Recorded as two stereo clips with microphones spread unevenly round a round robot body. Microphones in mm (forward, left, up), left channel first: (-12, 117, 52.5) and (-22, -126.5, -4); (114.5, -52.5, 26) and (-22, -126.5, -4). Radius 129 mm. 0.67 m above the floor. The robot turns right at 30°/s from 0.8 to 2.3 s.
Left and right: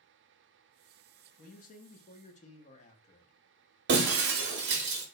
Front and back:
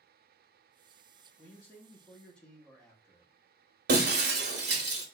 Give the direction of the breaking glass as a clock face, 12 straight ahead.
5 o'clock.